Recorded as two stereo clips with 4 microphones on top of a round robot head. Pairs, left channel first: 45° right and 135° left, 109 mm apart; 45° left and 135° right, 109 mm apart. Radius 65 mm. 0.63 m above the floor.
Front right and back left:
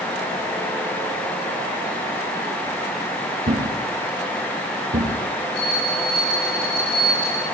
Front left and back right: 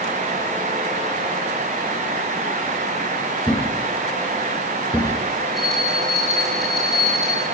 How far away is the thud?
About 4 m.